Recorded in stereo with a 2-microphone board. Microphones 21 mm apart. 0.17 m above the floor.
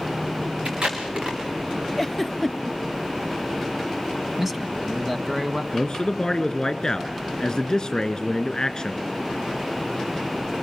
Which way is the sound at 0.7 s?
65° right (ahead or behind).